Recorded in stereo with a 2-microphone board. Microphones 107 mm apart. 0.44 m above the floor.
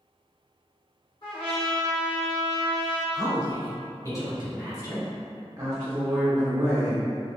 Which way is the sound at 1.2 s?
50° left (ahead or behind).